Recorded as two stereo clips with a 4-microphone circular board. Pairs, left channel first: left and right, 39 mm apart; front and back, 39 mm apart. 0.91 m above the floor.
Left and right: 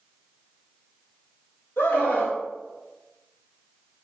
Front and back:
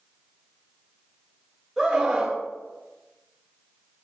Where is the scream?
95° left, 4.5 m.